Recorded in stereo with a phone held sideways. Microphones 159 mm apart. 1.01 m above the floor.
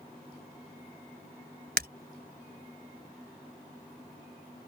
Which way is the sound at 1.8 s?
85° right.